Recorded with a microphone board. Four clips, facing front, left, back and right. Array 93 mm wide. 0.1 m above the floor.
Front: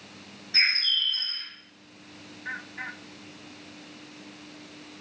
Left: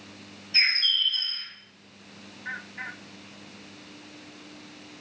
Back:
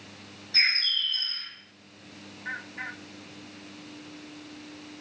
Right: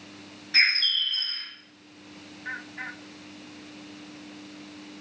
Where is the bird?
80° right, 4.5 m.